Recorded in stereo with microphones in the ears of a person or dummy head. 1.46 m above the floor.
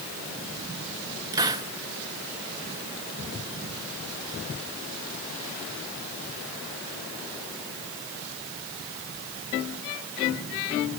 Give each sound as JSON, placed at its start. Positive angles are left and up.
{"t": 1.3, "sound": "a hiss", "side_deg": -20, "distance_m": 1.6}